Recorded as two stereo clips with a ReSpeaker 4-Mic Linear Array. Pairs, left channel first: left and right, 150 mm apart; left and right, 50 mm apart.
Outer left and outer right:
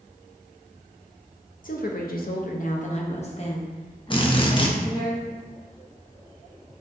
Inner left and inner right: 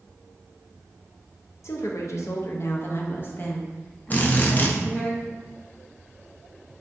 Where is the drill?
35° left (ahead or behind), 0.6 m.